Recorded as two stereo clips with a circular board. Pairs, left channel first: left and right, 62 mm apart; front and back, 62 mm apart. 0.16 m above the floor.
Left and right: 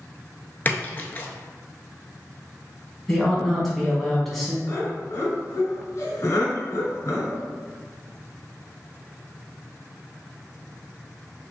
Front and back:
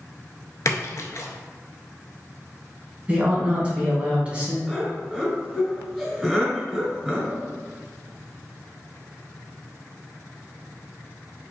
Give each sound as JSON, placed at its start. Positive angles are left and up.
{"t": 0.7, "sound": "a splash", "azimuth_deg": 30, "distance_m": 0.5}
{"t": 3.1, "sound": "a man speaking", "azimuth_deg": 175, "distance_m": 1.1}
{"t": 4.7, "sound": "laughter", "azimuth_deg": 85, "distance_m": 1.4}